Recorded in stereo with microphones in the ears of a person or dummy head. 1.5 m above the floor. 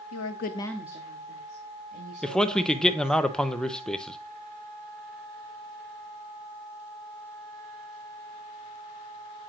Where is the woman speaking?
75° left (ahead or behind), 0.8 m; by 3.2 s 50° right (ahead or behind), 3.5 m.